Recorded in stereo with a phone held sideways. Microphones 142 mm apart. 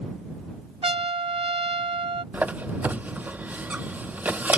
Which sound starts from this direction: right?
A trumpet, at 0.8 s.